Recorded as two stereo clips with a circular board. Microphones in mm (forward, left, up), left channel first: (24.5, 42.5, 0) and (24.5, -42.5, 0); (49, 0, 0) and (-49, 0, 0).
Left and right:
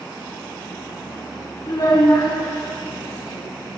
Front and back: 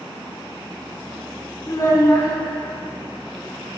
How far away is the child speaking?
About 1.6 m.